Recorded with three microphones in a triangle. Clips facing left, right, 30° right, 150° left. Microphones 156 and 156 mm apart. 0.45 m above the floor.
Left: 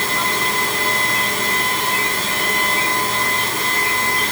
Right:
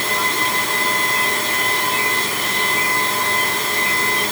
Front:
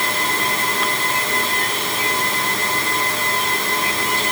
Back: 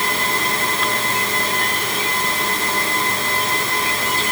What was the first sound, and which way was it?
Only background noise.